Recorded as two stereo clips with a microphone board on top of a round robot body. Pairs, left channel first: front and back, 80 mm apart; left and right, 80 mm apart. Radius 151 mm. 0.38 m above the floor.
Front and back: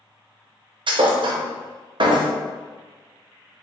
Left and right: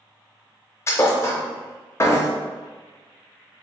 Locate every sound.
0.9 s a thud: 150° left, 0.5 m